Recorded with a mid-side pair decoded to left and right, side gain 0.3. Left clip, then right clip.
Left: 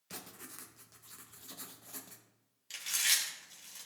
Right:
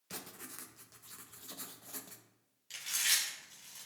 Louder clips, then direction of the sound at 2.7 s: Left 1 dB; 40° left.